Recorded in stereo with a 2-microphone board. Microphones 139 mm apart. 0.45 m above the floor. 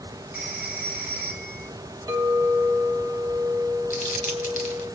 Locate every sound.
0.3 s a phone ringing: 10° right (ahead or behind), 4 m
2.1 s a clink: 25° right (ahead or behind), 1.7 m
3.9 s crumpling: 65° left (ahead or behind), 1.9 m